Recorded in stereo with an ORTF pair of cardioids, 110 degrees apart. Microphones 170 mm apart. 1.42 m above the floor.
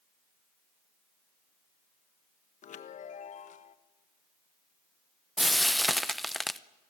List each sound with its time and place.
2.6 s a chime: 45° left, 1.4 m
5.4 s frying: straight ahead, 0.8 m